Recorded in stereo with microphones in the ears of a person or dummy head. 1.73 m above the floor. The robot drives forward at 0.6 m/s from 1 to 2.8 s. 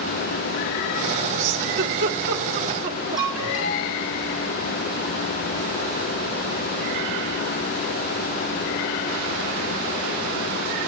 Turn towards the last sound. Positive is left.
turn(degrees=-5)  # may be behind; listen again after turning